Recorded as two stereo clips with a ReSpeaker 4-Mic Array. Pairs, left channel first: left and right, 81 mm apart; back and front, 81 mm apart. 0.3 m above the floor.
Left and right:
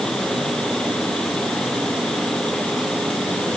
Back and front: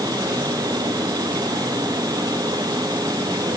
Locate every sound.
Only background noise.